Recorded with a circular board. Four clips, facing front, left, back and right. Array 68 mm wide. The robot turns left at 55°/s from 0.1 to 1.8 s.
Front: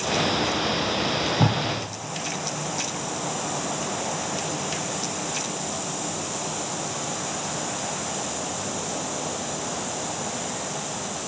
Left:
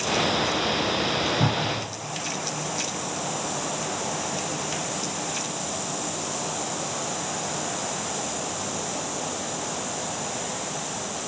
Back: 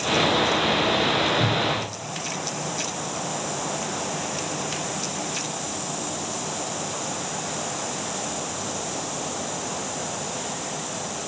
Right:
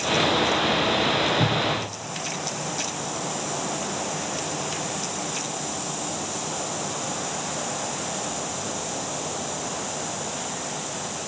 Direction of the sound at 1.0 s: 20° left.